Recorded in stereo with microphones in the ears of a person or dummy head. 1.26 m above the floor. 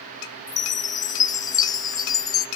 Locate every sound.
0.5 s a chime: 20° left (ahead or behind), 0.7 m